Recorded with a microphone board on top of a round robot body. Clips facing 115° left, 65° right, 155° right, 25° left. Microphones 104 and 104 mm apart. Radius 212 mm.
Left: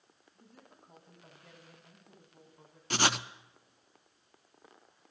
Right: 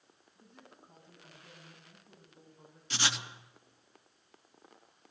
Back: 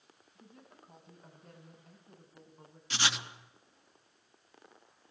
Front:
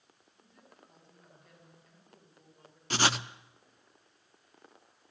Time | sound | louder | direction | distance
0.3 | a woman speaking | right 1 dB, back 3 dB | 155° left | 7.5 m
2.9 | writing | left 6 dB, front 6 dB | 70° left | 0.7 m